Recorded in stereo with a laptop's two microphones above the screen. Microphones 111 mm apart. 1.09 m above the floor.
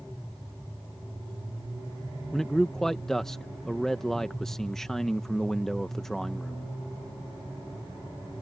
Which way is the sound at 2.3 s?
5° left (ahead or behind).